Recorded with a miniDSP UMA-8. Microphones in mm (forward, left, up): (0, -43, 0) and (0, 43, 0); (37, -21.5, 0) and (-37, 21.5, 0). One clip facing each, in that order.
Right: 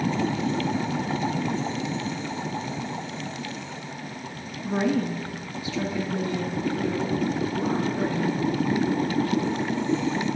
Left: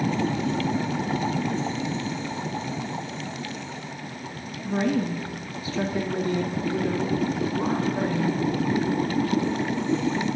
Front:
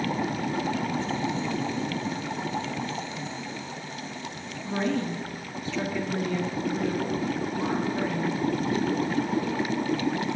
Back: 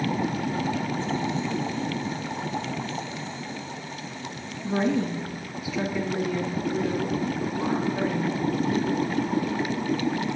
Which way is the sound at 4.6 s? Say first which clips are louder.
Even, back 3 dB; 145° right.